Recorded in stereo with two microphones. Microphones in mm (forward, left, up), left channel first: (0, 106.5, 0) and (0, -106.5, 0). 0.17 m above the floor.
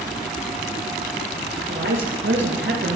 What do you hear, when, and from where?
1.7 s a woman speaking: 65° right (ahead or behind), 3.5 m; by 3.0 s 60° right (ahead or behind), 3 m